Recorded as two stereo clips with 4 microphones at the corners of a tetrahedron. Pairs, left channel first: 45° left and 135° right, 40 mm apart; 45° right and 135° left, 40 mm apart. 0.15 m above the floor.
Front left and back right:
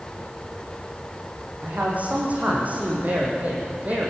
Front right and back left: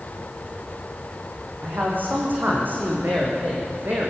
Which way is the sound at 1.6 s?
175° left.